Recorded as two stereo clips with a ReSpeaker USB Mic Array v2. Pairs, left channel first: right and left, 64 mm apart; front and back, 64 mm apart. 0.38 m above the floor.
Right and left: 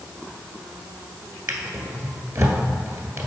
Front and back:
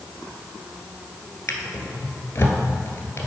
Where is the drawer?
50° left, 1.3 m.